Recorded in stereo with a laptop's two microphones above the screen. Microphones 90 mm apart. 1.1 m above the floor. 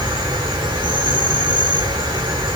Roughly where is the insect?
Right.